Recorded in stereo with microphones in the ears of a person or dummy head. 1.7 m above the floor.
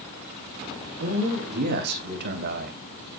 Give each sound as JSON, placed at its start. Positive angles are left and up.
{"t": 1.0, "sound": "a man speaking", "side_deg": -60, "distance_m": 3.5}